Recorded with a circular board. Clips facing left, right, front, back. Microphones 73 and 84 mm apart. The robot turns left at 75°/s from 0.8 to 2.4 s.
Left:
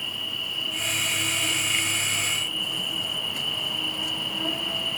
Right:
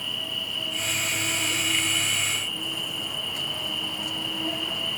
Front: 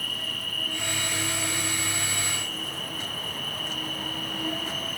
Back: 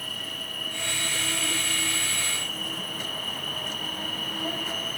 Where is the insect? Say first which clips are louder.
Even, front 2 dB; 110° right, 1.4 m; by 5.0 s 130° left, 1.4 m.